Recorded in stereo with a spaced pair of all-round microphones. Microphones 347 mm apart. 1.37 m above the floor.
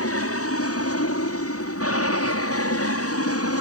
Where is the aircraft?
40° left (ahead or behind); by 3.6 s 45° left (ahead or behind).